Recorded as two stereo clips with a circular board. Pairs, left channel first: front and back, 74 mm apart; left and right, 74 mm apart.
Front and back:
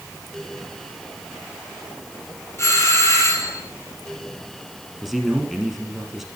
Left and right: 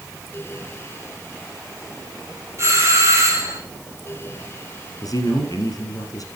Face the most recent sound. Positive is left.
turn(degrees=90)